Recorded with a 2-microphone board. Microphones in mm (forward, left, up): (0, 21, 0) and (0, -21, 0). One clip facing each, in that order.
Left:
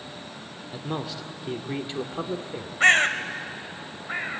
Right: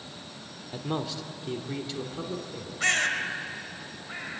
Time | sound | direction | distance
0.7 | a man speaking | 5° right (ahead or behind) | 1.4 m
2.8 | a bird | 35° left (ahead or behind) | 1.1 m